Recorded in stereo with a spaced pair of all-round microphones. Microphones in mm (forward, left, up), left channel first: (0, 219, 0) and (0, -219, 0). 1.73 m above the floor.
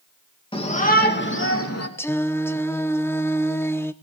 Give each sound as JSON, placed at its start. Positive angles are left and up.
{"t": 0.5, "sound": "a shout", "side_deg": 10, "distance_m": 2.5}
{"t": 2.0, "sound": "singing", "side_deg": 5, "distance_m": 0.8}